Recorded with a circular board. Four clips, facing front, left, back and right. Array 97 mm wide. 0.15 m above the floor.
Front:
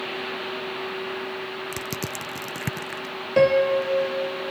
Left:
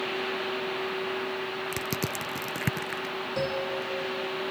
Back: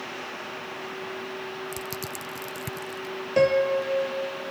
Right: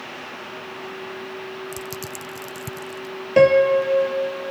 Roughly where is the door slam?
No door slam in this recording.